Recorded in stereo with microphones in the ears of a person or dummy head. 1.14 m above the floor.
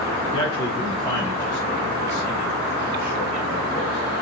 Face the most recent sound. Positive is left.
turn(degrees=-5)  # may be behind; listen again after turning